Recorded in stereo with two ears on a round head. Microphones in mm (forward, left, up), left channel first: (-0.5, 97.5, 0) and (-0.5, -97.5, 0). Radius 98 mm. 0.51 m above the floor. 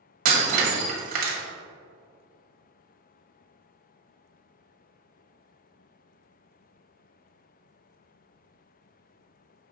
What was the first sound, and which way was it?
Breaking glass, 40° right (ahead or behind).